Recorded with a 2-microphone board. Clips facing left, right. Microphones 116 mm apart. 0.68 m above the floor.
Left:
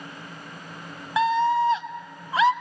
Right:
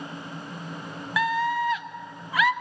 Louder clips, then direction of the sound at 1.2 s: Left 5 dB; 30° left (ahead or behind).